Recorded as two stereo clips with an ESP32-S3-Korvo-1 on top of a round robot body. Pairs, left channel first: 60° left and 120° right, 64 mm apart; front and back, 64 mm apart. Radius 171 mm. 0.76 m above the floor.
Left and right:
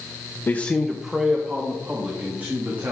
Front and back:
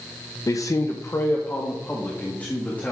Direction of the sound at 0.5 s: 5° left.